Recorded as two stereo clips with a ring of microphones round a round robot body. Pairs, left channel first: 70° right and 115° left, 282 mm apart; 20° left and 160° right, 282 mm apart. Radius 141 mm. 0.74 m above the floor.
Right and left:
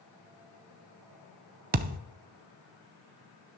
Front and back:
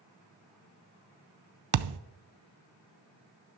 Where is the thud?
175° left, 0.5 m.